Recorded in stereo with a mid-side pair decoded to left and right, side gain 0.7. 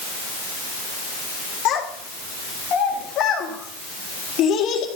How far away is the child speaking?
About 3 m.